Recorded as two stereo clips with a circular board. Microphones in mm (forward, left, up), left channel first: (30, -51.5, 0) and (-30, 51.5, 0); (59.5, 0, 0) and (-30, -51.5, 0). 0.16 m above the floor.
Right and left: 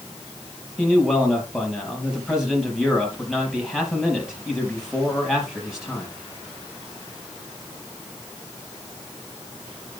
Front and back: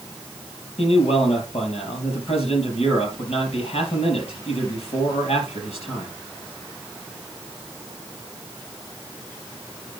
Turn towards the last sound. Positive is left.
turn(degrees=35)